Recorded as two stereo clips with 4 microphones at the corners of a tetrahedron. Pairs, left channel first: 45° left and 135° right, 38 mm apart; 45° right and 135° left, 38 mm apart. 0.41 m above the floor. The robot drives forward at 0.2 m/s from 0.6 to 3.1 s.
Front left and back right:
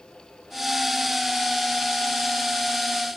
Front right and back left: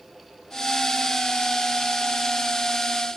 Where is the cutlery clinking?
No cutlery clinking in this recording.